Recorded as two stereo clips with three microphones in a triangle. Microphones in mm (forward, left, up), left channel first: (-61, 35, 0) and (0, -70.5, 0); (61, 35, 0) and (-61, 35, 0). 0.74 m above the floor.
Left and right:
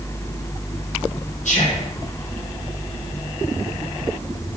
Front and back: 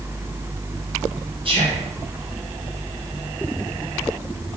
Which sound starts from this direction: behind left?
Whispering, at 1.4 s.